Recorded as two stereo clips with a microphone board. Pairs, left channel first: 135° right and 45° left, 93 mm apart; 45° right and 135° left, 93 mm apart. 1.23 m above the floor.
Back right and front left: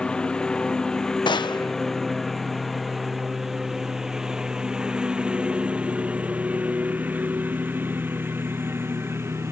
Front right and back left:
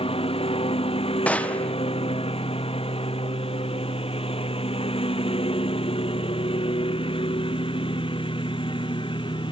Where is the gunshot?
120° right.